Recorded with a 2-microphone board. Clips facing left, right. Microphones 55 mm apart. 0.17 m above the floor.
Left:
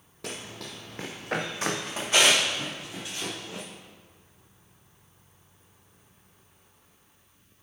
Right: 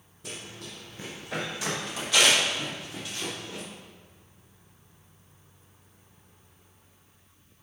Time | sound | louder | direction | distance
0.2 | running footsteps | left 3 dB | 80° left | 1.1 m